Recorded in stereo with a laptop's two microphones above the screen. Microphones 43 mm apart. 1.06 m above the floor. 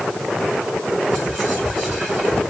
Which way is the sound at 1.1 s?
10° right (ahead or behind).